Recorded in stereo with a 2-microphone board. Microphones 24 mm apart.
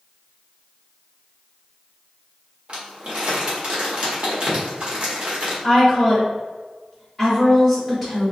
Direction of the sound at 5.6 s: 10° right (ahead or behind).